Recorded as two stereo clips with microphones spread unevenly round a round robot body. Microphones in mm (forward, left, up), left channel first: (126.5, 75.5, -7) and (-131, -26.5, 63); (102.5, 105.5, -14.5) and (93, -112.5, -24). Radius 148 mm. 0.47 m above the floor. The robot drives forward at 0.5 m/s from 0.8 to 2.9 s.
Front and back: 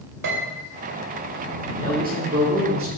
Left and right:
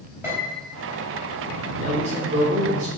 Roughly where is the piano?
Behind.